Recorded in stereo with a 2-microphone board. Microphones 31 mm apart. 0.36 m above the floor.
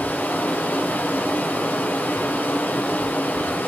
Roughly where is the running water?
Left.